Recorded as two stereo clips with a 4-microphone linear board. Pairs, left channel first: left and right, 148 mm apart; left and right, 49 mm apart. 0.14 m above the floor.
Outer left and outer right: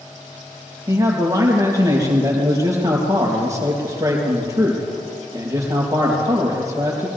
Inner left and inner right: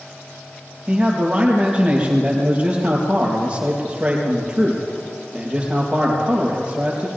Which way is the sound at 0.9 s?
25° right (ahead or behind).